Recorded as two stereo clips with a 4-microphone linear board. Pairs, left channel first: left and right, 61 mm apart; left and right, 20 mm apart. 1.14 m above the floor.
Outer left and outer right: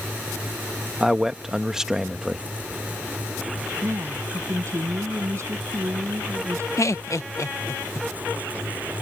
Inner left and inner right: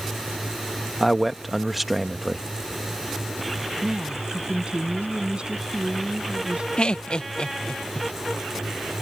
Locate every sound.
1.0 s a man speaking: 10° right (ahead or behind)
3.8 s a woman speaking: 55° right (ahead or behind)
6.8 s laughter: 60° left (ahead or behind)